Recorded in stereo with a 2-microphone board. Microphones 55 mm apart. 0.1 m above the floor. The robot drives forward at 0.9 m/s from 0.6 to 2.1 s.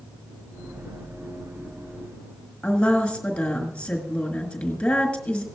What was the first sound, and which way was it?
A woman speaking, 20° left (ahead or behind).